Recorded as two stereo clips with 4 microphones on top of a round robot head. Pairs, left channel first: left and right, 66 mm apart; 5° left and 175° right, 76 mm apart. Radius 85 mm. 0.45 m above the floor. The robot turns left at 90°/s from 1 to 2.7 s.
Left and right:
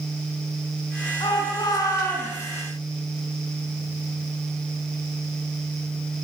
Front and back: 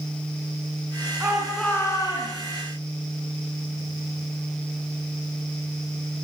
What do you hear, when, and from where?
1.2 s a shout: 125° left, 7.5 m; by 2.5 s 5° left, 7.5 m